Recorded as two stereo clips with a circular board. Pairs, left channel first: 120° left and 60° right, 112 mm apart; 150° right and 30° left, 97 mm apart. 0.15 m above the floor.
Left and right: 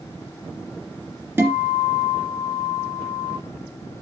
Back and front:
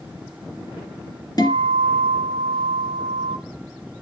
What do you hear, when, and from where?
1.4 s a guitar: 125° right, 2.5 m